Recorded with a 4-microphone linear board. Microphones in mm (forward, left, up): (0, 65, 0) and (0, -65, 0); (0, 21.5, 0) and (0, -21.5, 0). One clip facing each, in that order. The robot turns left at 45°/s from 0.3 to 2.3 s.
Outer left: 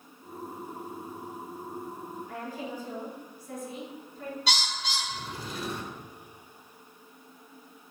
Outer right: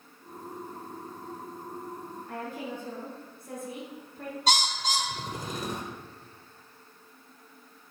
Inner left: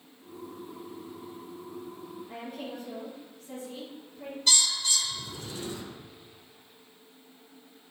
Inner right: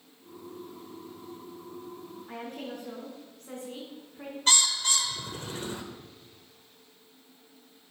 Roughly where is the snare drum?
No snare drum in this recording.